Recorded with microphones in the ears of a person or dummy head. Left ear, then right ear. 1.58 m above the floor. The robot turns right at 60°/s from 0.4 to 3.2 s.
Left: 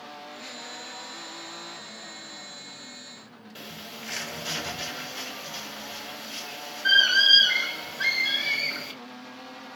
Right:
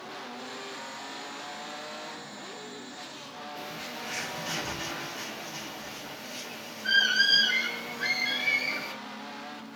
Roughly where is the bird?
Left.